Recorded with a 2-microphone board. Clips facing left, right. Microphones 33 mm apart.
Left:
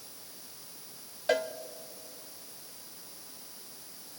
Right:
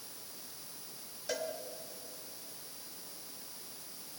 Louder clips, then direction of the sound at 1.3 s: Left 9 dB; 40° left (ahead or behind).